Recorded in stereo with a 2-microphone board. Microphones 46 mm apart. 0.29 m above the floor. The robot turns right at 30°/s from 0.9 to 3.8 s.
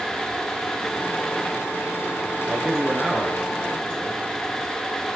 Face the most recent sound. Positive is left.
turn(degrees=15)